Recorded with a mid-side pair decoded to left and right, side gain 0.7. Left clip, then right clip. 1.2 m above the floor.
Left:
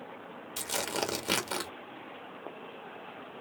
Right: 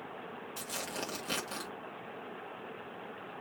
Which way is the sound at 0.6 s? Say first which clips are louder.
Left 7 dB; 40° left.